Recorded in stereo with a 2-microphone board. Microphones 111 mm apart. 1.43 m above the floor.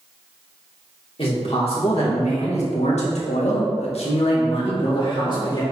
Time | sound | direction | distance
1.2 | a man speaking | 55° left (ahead or behind) | 2.5 m